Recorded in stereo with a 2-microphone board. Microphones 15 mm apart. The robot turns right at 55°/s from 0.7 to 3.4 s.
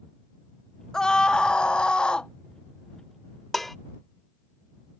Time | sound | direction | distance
0.9 | a scream | 40° left | ?
3.5 | dishes clattering | 15° left (ahead or behind) | ?